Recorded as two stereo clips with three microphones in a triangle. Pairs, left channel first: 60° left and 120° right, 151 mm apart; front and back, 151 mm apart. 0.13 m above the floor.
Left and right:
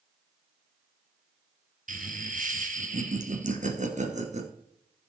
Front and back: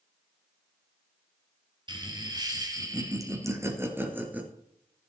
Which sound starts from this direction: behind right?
Laughter, at 1.9 s.